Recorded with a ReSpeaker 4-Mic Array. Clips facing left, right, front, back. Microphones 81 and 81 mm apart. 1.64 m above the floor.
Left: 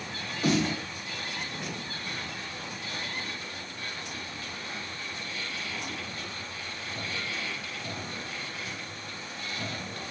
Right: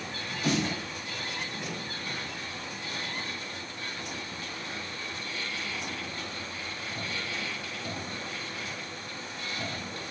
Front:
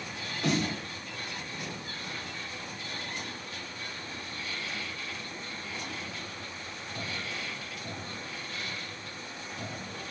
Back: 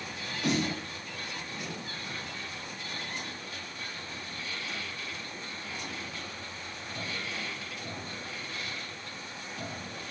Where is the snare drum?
50° left, 2 m.